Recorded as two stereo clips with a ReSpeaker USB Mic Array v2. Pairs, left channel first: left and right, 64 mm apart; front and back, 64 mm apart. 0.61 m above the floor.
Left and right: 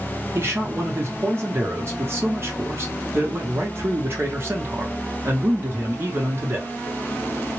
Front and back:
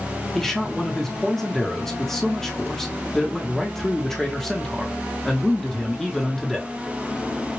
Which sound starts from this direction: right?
A man speaking, at 0.3 s.